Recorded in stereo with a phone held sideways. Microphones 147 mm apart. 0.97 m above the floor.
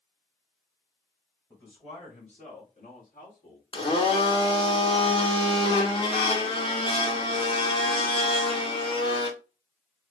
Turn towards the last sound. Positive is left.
turn(degrees=35)  # may be behind; listen again after turning